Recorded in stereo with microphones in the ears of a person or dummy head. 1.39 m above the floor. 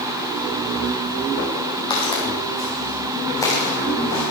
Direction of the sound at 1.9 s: 30° left (ahead or behind).